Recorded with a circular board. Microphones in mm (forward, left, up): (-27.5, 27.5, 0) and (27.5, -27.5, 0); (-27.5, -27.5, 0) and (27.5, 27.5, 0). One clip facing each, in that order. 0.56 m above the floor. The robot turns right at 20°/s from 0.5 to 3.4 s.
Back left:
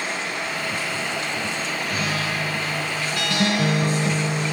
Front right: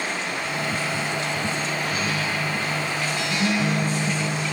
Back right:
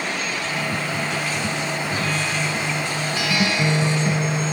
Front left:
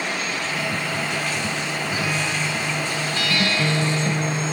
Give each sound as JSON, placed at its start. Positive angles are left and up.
{"t": 1.9, "sound": "a guitar", "azimuth_deg": 125, "distance_m": 1.1}